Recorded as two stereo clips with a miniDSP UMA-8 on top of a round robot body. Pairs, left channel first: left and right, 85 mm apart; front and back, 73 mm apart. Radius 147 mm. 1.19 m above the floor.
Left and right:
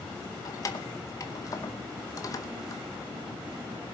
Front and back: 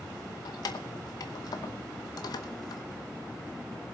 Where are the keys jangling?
40° left, 0.8 m.